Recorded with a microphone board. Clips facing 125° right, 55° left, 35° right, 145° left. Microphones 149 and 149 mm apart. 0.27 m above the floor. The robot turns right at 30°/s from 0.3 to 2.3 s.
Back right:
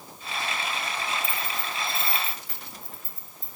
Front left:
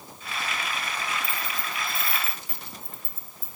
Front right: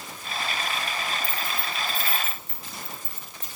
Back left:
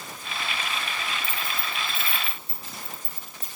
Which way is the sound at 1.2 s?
60° left.